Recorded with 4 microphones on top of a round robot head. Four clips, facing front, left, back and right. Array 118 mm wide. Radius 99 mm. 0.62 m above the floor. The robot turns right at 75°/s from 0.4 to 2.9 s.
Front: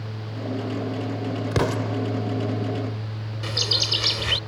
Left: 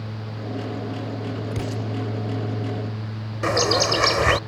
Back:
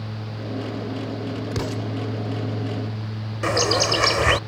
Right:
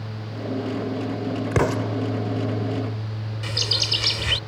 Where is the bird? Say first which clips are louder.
Left 14 dB, back 12 dB; 130° left.